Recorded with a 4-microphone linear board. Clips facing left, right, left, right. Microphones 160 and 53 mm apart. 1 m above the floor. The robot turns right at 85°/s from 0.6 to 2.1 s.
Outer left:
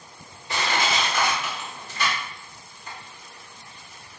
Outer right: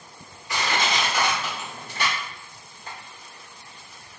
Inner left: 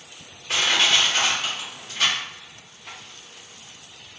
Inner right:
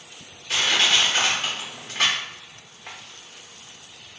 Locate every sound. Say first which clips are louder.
0.5 s crushing: even, even; 30° left (ahead or behind), 1.2 m; by 3.0 s 65° right (ahead or behind), 1.2 m